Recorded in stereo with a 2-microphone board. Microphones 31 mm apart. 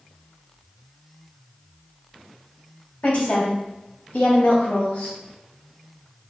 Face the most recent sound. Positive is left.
turn(degrees=45)  # may be behind; listen again after turning